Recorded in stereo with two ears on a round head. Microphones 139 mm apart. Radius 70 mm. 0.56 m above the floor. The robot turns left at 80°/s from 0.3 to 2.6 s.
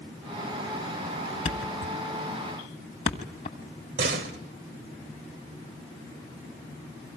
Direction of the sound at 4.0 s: 75° right (ahead or behind).